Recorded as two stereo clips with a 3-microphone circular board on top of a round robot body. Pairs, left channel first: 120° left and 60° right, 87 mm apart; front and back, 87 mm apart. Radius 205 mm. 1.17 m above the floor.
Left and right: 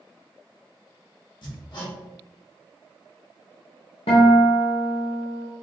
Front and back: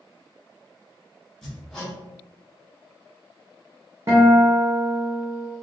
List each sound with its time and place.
1.4 s hammering: 85° left, 1.4 m
4.1 s a guitar: 120° left, 0.6 m